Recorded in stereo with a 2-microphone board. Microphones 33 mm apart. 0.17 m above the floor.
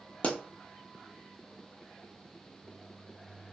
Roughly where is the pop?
Left.